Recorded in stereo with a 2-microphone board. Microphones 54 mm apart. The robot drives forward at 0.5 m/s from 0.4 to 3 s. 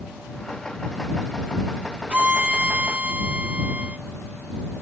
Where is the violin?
20° right (ahead or behind), 0.6 m.